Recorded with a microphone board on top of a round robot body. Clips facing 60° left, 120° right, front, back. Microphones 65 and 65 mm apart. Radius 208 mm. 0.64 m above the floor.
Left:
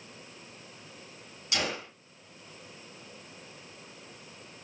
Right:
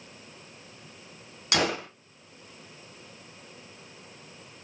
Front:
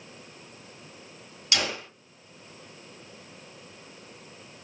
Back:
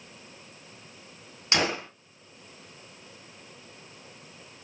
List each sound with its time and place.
1.5 s a gunshot: 125° right, 2 m